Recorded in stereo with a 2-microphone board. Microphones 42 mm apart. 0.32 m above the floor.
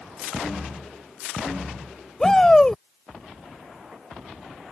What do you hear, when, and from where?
2.2 s a shout: 15° left (ahead or behind)